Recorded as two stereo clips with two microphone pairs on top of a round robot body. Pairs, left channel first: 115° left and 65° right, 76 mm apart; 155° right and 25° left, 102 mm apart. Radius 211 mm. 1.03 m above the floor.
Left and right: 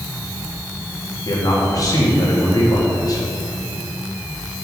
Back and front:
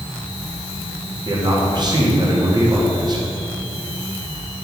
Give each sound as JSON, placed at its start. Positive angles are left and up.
{"t": 1.2, "sound": "a man speaking", "azimuth_deg": 75, "distance_m": 2.5}